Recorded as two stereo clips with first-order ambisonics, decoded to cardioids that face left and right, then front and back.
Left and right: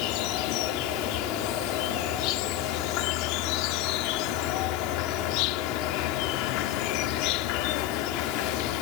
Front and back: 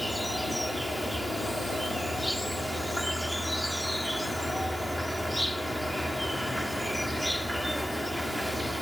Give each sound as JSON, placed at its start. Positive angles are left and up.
{"t": 0.0, "sound": "an insect", "azimuth_deg": 90}